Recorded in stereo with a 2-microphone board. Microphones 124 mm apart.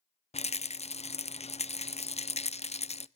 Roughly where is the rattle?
Left.